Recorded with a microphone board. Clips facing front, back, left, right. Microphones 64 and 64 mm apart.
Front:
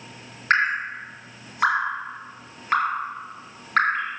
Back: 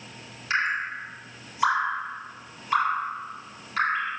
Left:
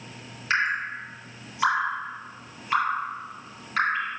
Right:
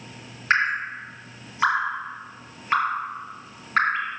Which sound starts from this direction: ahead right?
Dripping, at 0.5 s.